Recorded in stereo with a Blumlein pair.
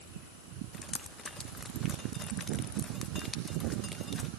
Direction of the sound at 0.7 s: 15° left.